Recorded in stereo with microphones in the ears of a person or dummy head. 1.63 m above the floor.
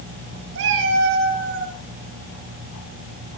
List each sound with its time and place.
0.6 s a cat meowing: 70° right (ahead or behind), 6 m; by 1.8 s 55° right (ahead or behind), 5 m